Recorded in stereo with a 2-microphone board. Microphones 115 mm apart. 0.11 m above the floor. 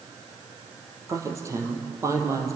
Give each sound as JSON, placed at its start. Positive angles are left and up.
{"t": 1.1, "sound": "a man speaking", "side_deg": -25, "distance_m": 3.5}